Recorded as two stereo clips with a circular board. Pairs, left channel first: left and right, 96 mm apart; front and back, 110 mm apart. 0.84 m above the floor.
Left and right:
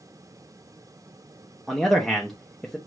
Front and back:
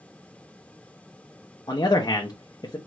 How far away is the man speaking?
About 0.8 m.